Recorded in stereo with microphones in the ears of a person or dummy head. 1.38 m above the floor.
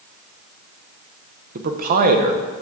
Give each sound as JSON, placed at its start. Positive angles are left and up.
{"t": 1.6, "sound": "a man speaking", "side_deg": -45, "distance_m": 0.7}